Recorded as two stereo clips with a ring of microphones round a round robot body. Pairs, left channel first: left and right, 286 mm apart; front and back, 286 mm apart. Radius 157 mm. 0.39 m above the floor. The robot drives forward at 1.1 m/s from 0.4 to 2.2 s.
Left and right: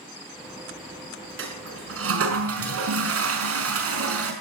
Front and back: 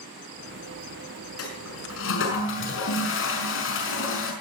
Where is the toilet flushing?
45° right, 6 m; by 4.3 s 50° right, 5.5 m.